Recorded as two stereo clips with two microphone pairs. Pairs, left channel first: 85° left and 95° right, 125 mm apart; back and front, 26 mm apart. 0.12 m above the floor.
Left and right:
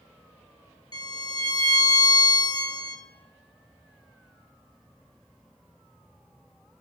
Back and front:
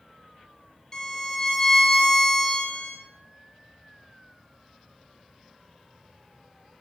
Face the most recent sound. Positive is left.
turn(degrees=125)